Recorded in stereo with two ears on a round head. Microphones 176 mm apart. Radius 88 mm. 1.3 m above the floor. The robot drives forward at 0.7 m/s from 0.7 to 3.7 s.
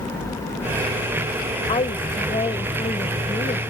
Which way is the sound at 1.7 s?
30° left (ahead or behind).